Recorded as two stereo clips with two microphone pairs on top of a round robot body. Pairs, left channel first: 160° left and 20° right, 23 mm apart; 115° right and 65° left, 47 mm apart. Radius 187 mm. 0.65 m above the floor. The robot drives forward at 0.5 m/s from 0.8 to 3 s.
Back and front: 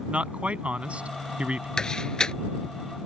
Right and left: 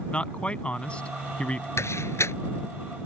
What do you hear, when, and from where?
0.1 s a man speaking: 50° right
1.8 s a door slam: 140° right